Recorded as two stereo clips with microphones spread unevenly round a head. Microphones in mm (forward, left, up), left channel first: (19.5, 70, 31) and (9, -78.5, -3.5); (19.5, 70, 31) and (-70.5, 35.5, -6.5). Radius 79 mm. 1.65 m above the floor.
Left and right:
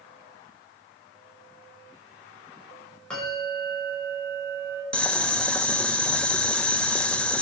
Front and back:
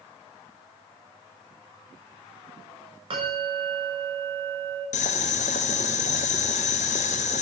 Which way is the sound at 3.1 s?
170° left.